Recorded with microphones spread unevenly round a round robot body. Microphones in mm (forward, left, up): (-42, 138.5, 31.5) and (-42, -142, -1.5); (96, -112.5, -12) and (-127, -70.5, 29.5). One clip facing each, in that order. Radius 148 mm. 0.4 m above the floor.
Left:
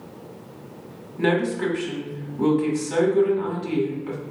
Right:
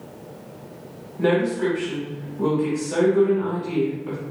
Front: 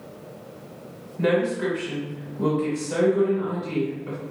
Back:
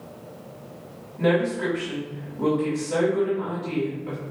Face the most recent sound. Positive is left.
turn(degrees=60)